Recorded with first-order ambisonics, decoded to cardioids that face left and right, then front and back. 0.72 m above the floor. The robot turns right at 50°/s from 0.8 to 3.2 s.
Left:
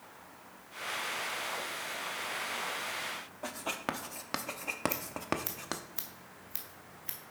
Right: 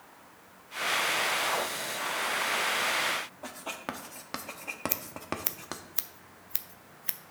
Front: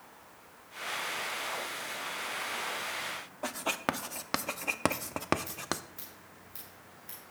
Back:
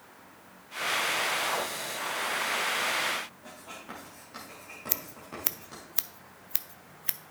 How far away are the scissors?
About 0.6 m.